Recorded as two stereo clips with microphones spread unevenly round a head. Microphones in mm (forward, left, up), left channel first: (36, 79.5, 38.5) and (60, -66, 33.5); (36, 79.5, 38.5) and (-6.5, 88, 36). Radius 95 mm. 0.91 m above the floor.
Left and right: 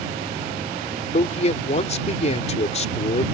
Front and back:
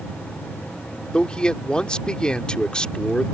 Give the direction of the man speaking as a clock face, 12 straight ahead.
10 o'clock.